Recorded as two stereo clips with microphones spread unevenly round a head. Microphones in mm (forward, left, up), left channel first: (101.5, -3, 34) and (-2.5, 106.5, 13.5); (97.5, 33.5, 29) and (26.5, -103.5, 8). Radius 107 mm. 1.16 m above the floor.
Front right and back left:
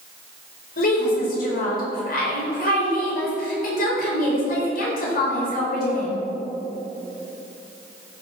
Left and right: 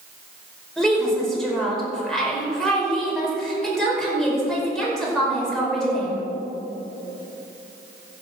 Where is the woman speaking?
25° right, 5.5 m.